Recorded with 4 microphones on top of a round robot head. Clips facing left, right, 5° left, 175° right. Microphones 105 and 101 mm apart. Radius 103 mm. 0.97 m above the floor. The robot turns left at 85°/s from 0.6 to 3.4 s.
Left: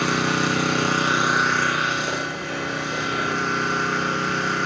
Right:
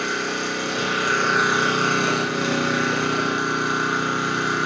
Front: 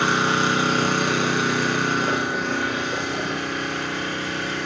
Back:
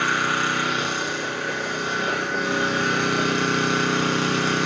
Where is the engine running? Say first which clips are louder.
Left 4 dB, front 3 dB; 65° left, 7.5 m; by 4.7 s 170° right, 7.5 m.